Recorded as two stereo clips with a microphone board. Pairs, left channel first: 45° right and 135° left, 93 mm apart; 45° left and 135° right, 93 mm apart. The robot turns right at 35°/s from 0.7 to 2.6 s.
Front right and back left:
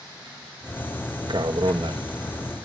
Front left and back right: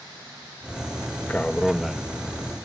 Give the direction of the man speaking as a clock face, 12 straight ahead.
8 o'clock.